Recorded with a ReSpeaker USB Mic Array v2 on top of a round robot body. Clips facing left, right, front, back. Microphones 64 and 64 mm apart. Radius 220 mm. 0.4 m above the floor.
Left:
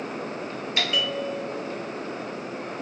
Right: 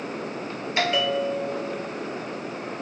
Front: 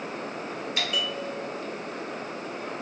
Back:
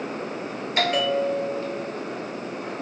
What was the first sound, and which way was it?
A bell, 145° right.